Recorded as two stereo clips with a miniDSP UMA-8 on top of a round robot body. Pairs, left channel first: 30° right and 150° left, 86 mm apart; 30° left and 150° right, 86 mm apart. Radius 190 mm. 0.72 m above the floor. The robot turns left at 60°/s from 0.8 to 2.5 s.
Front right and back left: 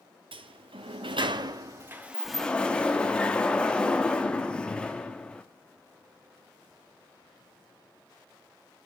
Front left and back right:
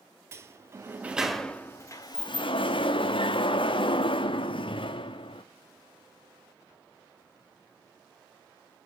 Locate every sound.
0.3 s a sliding door: 150° left, 0.9 m; by 5.4 s 50° left, 0.9 m